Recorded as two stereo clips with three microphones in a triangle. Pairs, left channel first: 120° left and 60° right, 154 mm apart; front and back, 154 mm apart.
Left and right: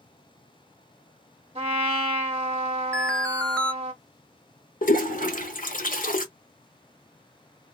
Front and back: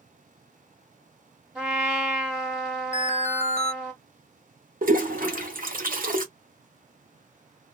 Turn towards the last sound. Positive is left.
turn(degrees=150)